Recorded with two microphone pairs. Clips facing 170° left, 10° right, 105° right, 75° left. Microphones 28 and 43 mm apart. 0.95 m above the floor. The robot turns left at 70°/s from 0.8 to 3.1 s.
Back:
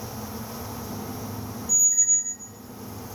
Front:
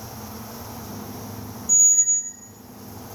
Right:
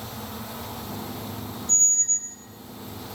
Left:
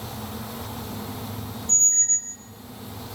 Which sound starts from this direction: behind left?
A squeak, at 1.7 s.